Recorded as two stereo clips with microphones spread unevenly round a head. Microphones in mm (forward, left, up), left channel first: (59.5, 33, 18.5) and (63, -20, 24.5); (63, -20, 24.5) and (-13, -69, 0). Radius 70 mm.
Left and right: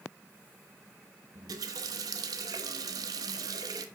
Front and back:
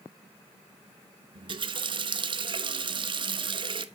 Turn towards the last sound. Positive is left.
turn(degrees=-115)